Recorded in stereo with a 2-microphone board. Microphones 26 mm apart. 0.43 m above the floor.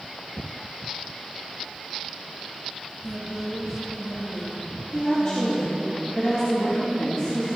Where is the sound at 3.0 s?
Centre (ahead or behind), 3 m; by 5.9 s 15° right (ahead or behind), 5 m.